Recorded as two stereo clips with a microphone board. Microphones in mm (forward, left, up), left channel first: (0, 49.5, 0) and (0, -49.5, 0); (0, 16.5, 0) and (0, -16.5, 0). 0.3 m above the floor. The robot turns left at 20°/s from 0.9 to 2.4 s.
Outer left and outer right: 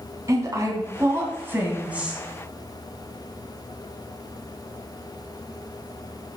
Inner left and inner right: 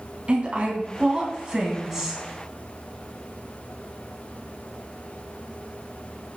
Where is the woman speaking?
30° right (ahead or behind), 3 m; by 2.2 s 10° right (ahead or behind), 3 m.